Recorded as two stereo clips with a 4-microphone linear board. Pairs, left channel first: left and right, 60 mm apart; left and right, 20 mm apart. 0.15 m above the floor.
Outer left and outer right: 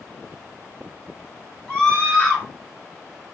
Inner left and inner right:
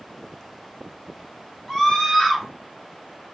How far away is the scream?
About 1.7 m.